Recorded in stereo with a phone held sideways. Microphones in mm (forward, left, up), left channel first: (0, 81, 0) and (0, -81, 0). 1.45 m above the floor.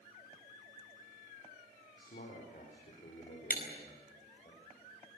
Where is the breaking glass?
70° left (ahead or behind), 4.5 m.